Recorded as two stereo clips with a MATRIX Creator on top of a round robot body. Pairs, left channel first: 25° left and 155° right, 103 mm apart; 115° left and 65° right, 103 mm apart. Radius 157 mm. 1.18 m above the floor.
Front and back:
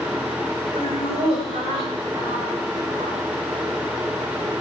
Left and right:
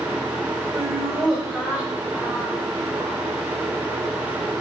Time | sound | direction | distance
0.7 | laughter | 155° right | 7 m